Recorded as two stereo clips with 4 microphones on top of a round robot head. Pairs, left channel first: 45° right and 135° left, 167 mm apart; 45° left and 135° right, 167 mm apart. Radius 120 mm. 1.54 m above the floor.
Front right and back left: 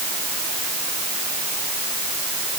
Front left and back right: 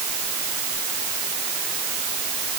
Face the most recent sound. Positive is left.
No sound to turn to.